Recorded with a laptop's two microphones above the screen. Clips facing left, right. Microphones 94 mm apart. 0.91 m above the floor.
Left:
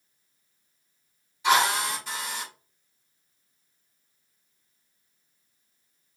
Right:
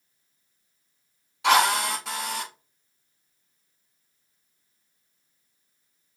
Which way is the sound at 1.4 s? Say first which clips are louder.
Right 2 dB; 85° right.